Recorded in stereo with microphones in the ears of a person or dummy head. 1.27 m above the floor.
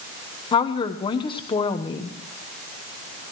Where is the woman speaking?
25° left (ahead or behind), 1.1 m.